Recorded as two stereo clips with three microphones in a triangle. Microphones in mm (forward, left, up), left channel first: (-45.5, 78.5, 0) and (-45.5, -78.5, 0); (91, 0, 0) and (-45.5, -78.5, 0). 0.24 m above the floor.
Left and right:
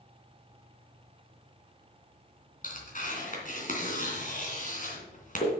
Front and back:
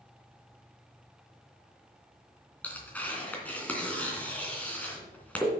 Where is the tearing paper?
110° left, 3 m.